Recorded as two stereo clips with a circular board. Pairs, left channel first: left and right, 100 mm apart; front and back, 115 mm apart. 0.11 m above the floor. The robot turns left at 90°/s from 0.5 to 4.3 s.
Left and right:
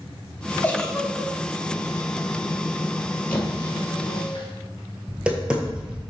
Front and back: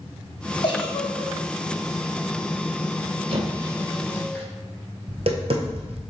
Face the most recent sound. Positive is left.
turn(degrees=-170)